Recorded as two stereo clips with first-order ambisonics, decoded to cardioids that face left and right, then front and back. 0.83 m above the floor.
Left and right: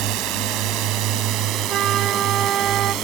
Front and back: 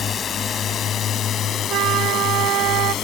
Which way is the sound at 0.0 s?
65° right.